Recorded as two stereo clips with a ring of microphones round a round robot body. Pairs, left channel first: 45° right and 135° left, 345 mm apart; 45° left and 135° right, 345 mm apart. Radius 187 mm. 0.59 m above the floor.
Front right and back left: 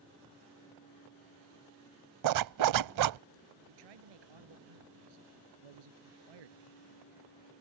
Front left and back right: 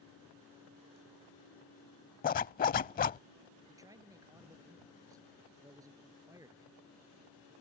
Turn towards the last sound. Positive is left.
turn(degrees=145)